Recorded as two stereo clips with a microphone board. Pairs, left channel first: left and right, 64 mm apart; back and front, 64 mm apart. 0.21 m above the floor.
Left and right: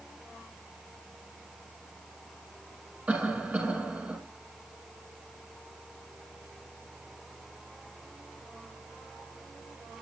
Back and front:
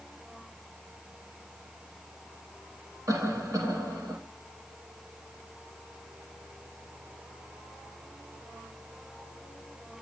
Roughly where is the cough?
Ahead.